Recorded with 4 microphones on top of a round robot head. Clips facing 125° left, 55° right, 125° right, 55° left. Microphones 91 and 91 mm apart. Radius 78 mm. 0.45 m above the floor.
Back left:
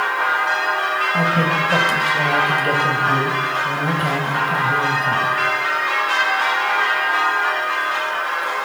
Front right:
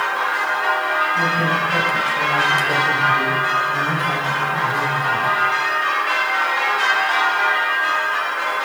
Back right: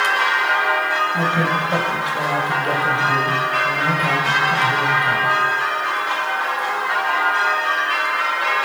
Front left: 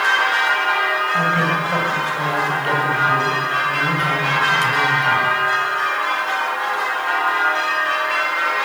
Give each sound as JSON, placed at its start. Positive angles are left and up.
{"t": 1.1, "sound": "a man speaking", "azimuth_deg": 160, "distance_m": 3.0}